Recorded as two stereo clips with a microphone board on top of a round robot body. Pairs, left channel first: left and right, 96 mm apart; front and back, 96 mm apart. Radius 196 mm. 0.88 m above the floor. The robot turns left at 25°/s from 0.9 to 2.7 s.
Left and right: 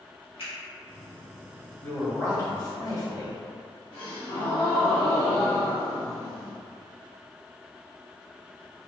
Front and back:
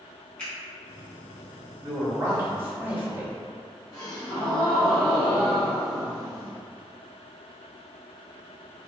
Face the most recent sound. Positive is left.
turn(degrees=60)